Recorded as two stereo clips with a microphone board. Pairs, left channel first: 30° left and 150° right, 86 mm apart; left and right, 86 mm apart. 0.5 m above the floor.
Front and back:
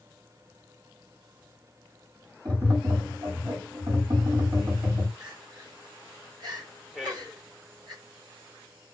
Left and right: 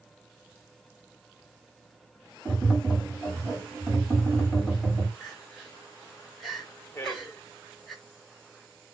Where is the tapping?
175° right, 3 m.